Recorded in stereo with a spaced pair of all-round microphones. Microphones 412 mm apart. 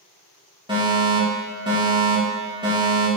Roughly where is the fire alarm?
Centre.